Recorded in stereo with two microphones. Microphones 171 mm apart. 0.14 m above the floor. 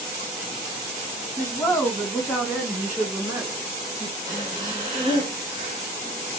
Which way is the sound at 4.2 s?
25° right (ahead or behind).